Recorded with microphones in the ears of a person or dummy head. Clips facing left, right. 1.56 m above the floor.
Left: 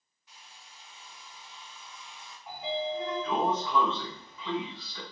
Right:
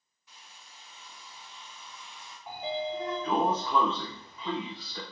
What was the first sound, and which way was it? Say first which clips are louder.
A hair dryer: even; 65° right (ahead or behind).